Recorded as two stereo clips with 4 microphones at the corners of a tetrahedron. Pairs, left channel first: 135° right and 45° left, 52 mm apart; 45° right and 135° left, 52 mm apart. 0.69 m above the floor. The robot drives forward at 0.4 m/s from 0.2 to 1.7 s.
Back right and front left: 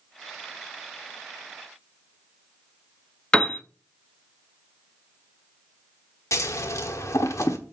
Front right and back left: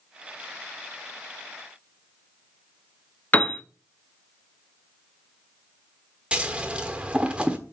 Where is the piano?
75° right, 0.8 m.